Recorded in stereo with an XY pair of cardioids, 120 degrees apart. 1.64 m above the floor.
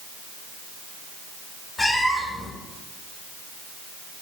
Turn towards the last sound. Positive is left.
turn(degrees=20)